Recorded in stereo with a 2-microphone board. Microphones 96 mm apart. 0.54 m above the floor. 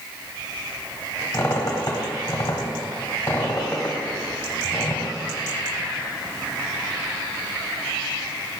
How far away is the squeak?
About 1.6 m.